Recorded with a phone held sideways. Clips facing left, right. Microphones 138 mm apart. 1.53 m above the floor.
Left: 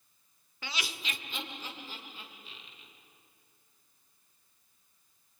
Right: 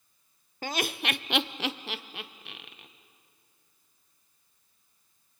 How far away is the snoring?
No snoring in this recording.